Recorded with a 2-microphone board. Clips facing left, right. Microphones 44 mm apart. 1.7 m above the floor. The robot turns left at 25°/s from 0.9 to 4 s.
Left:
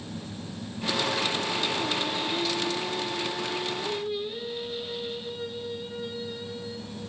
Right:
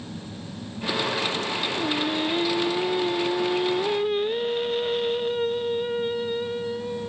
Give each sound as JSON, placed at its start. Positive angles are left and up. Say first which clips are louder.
{"t": 1.8, "sound": "singing", "louder": "right 4 dB", "azimuth_deg": -30, "distance_m": 1.2}